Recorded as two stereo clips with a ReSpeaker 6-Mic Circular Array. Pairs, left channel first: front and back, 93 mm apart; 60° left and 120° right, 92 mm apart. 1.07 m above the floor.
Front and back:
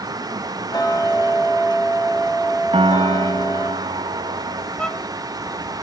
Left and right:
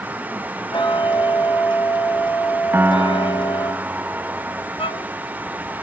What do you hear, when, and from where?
0.7 s ticking: 40° left, 1.9 m
2.7 s a piano: 170° left, 0.7 m
4.8 s a violin: 80° left, 0.8 m